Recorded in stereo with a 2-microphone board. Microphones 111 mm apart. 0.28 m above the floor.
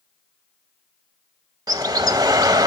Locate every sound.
1.7 s a bird: 35° right (ahead or behind), 1.1 m